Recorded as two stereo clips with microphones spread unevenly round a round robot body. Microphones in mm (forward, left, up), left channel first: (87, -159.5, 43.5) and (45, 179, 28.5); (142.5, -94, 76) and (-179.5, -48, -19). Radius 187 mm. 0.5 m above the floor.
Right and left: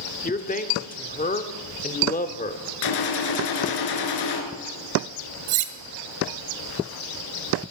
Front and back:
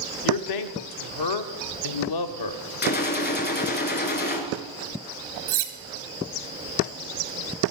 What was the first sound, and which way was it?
A man speaking, 20° right.